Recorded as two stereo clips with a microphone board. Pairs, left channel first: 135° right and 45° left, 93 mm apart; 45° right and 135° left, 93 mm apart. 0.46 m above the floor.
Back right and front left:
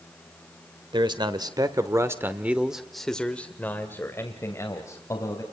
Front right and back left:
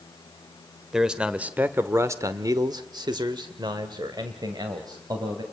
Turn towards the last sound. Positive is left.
turn(degrees=175)